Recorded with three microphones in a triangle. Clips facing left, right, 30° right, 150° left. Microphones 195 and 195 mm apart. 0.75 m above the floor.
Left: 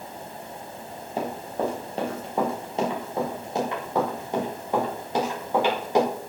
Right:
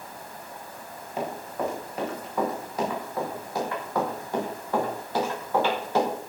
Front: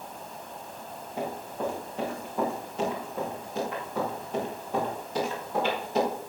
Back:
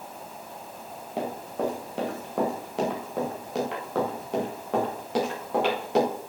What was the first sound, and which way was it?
Running footsteps, 145° left.